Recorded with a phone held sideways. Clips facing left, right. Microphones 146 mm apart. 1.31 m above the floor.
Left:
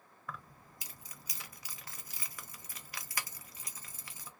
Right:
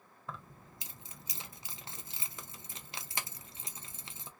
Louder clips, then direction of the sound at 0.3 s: Right 1 dB; 25° right (ahead or behind).